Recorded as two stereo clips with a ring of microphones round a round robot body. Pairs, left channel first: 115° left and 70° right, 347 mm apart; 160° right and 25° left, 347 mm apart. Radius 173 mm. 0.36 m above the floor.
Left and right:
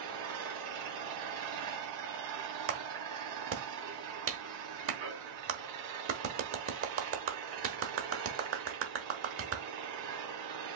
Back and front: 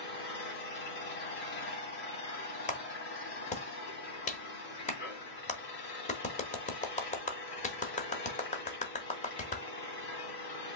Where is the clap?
95° right, 1.1 m.